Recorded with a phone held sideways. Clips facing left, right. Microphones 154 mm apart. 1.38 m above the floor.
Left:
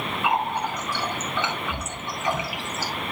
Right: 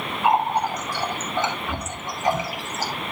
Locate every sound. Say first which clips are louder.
0.2 s a running tap: right 5 dB; 40° right (ahead or behind), 2 m